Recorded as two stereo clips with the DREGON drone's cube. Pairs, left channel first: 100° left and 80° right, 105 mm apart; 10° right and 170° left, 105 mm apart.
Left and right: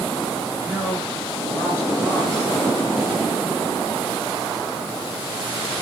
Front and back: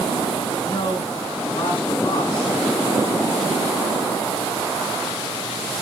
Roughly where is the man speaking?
Ahead left.